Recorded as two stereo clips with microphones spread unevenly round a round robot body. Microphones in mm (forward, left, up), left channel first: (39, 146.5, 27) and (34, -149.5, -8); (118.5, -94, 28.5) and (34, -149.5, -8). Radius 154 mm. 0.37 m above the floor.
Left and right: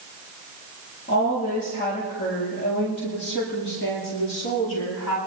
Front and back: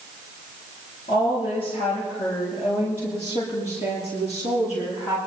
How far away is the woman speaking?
About 7.5 m.